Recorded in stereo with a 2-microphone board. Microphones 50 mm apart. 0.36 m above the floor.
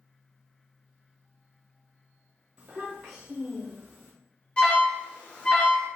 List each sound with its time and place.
2.6 s a child speaking: 20° right (ahead or behind), 0.8 m; by 4.1 s centre (ahead or behind), 1.2 m
4.6 s an alarm: 20° left (ahead or behind), 1.0 m